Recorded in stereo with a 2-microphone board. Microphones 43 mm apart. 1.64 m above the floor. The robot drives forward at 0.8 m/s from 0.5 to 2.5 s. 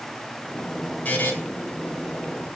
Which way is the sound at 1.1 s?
40° left (ahead or behind).